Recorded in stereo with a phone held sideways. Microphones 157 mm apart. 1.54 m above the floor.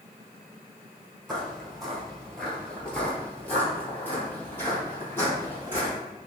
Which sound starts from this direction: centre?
Footsteps, at 1.3 s.